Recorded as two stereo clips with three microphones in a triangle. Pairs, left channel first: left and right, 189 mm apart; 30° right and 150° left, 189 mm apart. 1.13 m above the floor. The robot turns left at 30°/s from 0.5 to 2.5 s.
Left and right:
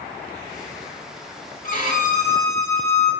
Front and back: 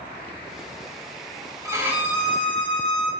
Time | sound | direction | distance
1.6 | a violin | 85° left | 1.2 m